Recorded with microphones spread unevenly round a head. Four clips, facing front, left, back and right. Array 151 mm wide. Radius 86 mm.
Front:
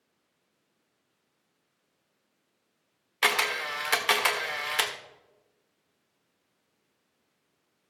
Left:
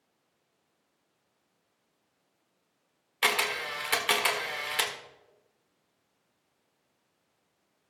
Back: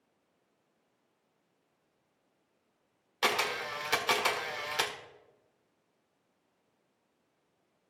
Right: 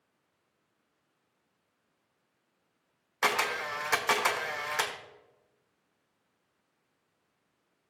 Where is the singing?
I don't hear singing.